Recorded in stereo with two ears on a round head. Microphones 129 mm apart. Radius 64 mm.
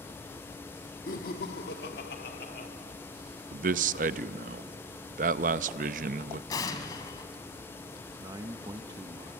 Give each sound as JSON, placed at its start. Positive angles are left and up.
{"t": 1.1, "sound": "laughter", "side_deg": 60, "distance_m": 1.2}
{"t": 3.5, "sound": "a man speaking", "side_deg": -60, "distance_m": 0.6}
{"t": 6.5, "sound": "an explosion", "side_deg": 25, "distance_m": 1.4}
{"t": 8.2, "sound": "a man speaking", "side_deg": -25, "distance_m": 0.8}